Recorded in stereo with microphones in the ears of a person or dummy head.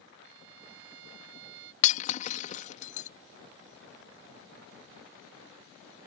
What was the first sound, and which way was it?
A violin, 65° right (ahead or behind).